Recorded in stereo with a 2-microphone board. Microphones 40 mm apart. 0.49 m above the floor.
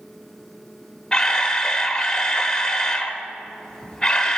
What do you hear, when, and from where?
1.1 s a camera shutter: 20° left (ahead or behind), 0.8 m